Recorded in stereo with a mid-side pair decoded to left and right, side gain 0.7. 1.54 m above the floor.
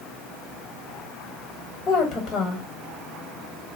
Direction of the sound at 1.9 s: 40° left.